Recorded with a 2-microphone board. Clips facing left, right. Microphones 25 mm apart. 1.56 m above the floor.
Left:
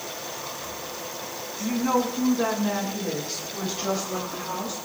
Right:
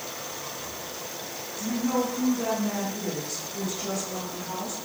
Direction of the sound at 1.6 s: 45° left (ahead or behind).